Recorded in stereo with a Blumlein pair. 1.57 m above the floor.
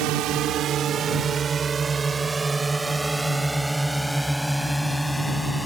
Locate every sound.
0.0 s a drone: 40° right; by 5.7 s 5° left